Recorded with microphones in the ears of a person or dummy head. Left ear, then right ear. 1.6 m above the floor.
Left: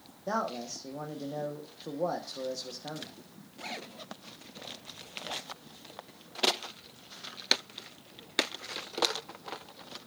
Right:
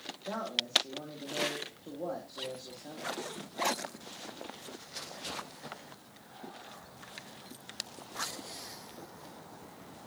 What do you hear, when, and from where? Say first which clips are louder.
0.3 s a man speaking: left 2 dB; 80° left, 1.4 m